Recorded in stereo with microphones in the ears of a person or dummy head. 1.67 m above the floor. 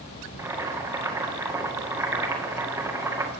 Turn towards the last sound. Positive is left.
turn(degrees=-15)  # may be behind; listen again after turning